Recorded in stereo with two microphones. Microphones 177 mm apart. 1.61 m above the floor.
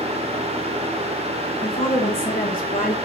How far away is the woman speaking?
About 2 m.